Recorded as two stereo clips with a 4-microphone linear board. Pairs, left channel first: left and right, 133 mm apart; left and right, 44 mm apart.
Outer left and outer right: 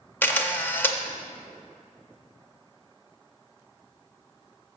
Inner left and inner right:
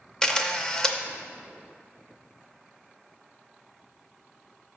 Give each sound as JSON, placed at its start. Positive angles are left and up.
{"t": 0.2, "sound": "a camera shutter", "side_deg": 15, "distance_m": 0.6}